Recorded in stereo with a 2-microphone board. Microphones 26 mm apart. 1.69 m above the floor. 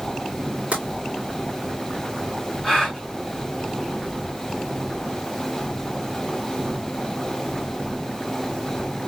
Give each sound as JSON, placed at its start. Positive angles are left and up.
{"t": 0.7, "sound": "tapping", "side_deg": -55, "distance_m": 2.5}
{"t": 2.6, "sound": "a gasp", "side_deg": 20, "distance_m": 3.5}